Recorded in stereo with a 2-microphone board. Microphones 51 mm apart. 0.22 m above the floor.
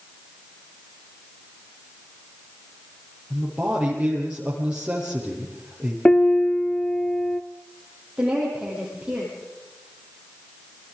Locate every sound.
3.3 s a man speaking: 20° right (ahead or behind), 8.5 m
6.0 s a piano: 20° left (ahead or behind), 0.9 m
8.2 s a woman speaking: 20° right (ahead or behind), 9.5 m